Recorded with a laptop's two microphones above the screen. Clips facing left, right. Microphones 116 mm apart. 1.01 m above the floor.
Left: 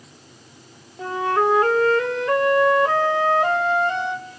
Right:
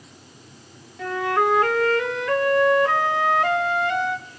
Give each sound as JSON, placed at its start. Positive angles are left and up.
{"t": 1.0, "sound": "a flute", "side_deg": 30, "distance_m": 1.4}